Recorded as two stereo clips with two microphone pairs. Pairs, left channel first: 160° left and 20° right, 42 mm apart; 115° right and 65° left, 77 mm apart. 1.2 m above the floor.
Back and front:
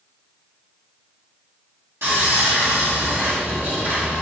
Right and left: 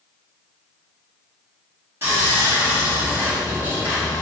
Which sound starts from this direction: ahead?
Sawing, at 2.0 s.